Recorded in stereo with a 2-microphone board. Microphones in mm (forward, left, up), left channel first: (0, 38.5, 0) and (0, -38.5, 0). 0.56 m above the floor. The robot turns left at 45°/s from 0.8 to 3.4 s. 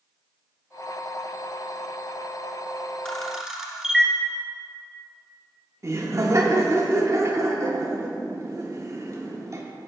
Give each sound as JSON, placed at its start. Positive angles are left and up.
{"t": 3.0, "sound": "a camera shutter", "side_deg": 10, "distance_m": 1.2}
{"t": 5.8, "sound": "laughter", "side_deg": -40, "distance_m": 1.2}